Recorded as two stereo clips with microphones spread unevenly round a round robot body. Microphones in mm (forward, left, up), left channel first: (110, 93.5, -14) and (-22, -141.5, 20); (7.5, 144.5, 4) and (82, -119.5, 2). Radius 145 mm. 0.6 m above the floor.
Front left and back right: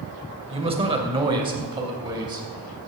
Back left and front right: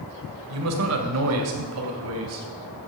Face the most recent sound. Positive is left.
turn(degrees=-45)